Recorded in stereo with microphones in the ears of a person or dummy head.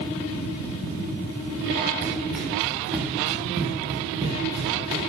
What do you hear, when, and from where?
2.0 s running footsteps: 5° left (ahead or behind), 6 m; by 5.1 s 20° right (ahead or behind), 5 m